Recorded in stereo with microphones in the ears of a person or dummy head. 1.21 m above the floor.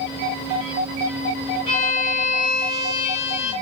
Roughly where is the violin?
Left.